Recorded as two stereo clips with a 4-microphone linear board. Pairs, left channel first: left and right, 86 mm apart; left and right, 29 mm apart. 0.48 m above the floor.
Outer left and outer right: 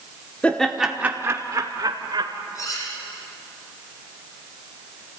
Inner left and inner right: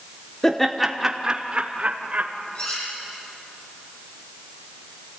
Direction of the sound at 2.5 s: 40° left (ahead or behind).